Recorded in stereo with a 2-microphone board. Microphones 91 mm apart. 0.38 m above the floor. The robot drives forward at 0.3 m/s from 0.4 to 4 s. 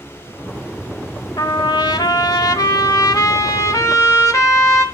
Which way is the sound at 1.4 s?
55° left (ahead or behind).